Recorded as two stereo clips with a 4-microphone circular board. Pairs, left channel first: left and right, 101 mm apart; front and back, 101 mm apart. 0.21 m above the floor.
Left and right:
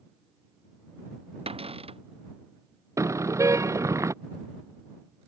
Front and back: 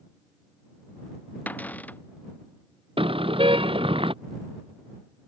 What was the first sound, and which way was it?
A cupboard door, 75° right.